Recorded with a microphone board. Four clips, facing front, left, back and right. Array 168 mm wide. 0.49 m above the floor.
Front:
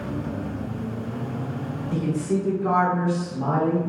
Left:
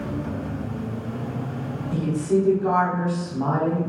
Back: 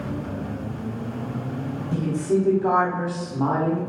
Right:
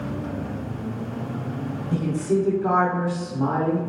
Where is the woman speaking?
125° right, 1.1 m; by 3.8 s 160° left, 1.3 m.